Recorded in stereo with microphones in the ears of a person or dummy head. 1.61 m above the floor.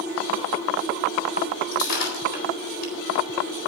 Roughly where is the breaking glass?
Left.